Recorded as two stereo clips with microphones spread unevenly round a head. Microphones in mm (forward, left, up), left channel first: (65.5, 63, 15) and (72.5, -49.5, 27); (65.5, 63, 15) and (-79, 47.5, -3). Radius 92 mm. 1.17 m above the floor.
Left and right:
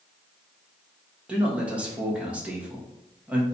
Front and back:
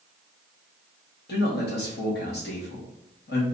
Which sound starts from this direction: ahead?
A man speaking, at 1.3 s.